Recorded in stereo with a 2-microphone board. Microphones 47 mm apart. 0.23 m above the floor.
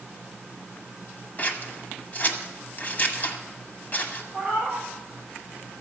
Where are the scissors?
35° left (ahead or behind), 1.1 m.